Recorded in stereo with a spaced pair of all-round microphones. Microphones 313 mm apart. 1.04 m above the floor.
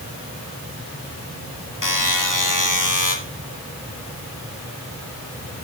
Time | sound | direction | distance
1.8 | a buzzer | 75° left (ahead or behind) | 2.0 m